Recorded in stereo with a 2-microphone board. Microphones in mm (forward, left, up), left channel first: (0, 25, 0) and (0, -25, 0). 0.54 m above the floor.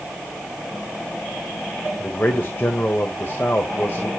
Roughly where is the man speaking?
Left.